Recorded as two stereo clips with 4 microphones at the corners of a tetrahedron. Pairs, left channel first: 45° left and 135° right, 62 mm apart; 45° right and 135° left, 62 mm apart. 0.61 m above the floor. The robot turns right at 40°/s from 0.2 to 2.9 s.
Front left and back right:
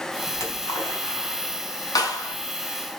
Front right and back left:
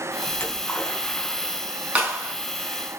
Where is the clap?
70° left, 3.5 m; by 2.3 s 85° left, 3.5 m.